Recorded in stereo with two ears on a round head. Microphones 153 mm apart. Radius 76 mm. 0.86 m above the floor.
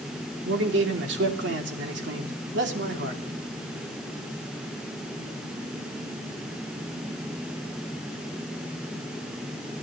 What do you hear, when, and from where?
0.5 s a man speaking: 70° right (ahead or behind), 2.5 m